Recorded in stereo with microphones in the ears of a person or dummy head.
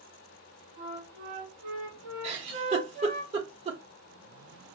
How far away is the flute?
About 1.7 m.